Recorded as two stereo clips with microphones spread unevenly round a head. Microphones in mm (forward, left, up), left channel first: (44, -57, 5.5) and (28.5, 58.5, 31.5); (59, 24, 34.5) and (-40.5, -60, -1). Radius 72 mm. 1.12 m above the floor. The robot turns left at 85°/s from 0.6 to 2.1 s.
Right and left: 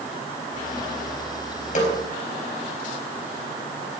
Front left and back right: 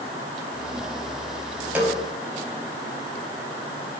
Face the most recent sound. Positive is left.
turn(degrees=-90)